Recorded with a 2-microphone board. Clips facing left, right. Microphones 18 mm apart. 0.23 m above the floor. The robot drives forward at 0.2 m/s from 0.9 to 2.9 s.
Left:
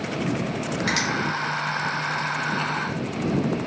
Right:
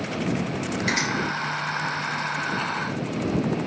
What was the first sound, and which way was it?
A finger snap, 55° left (ahead or behind).